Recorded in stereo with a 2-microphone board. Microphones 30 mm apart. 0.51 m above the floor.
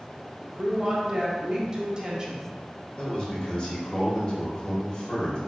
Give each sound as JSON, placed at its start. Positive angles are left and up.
{"t": 0.4, "sound": "a woman speaking", "side_deg": -25, "distance_m": 0.8}
{"t": 3.0, "sound": "a man speaking", "side_deg": 30, "distance_m": 1.2}